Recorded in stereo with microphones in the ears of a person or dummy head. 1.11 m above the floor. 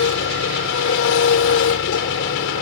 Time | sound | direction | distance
0.0 | an engine running | 70° left (ahead or behind) | ?